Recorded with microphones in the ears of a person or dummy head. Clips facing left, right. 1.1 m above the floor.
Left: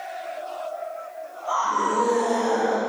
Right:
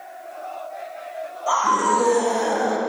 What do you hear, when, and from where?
1.5 s a scream: 75° right (ahead or behind), 2.5 m; by 2.8 s 55° right (ahead or behind), 1.8 m